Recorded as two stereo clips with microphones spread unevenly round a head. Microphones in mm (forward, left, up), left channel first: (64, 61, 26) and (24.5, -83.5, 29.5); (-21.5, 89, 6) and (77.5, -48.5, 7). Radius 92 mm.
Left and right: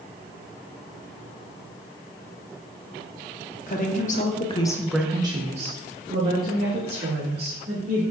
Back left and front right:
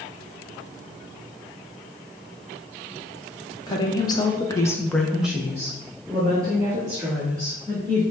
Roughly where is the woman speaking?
Ahead left.